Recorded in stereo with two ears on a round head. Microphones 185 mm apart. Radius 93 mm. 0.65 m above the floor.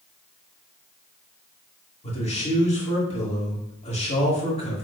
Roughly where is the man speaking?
Left.